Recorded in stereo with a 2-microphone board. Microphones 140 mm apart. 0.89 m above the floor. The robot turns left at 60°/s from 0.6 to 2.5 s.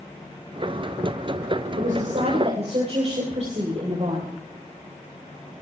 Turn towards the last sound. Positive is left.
turn(degrees=-130)